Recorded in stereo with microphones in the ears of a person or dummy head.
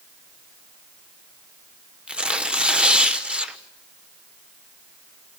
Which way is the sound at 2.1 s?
5° right (ahead or behind).